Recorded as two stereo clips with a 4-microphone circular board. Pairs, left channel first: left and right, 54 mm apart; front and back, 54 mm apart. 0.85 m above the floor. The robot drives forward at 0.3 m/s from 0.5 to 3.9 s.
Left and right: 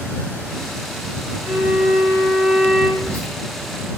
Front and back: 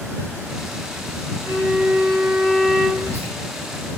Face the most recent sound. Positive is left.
turn(degrees=40)